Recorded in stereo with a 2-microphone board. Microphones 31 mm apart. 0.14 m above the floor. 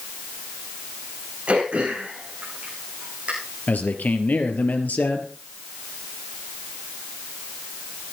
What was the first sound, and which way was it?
Throat clearing, 45° right (ahead or behind).